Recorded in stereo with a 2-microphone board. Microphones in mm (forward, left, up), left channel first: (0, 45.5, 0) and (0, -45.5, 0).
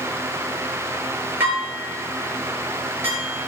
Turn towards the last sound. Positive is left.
turn(degrees=-25)  # may be behind; listen again after turning